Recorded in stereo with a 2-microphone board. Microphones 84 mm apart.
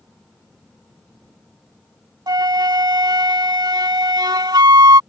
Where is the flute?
55° right (ahead or behind).